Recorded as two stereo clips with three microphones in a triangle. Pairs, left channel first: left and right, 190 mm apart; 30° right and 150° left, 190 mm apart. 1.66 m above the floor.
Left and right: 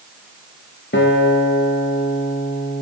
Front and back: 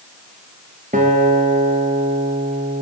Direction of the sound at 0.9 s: 105° left.